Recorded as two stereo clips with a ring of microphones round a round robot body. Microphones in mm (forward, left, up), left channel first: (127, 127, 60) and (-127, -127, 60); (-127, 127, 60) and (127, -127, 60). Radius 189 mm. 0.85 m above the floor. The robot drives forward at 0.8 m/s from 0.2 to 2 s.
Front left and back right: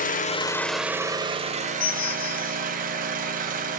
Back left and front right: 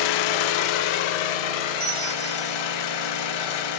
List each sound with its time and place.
0.0 s an engine running: 115° left, 0.9 m; by 3.8 s 155° left, 2.0 m
1.8 s a bell: 10° right, 1.4 m; by 2.6 s 15° right, 1.3 m